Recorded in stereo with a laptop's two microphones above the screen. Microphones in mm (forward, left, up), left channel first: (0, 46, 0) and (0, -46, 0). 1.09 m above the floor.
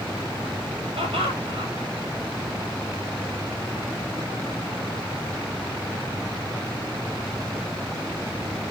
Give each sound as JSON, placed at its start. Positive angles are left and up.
{"t": 1.0, "sound": "laughter", "side_deg": -85, "distance_m": 6.5}